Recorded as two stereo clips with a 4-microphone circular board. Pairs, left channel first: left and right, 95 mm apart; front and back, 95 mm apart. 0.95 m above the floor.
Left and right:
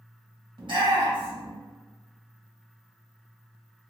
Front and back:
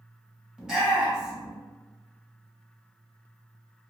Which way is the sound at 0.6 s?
95° right.